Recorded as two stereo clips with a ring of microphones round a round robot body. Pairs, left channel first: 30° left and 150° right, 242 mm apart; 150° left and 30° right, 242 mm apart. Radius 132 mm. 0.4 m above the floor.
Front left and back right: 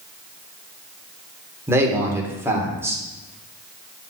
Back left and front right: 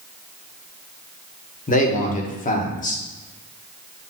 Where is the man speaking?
140° left, 1.4 m.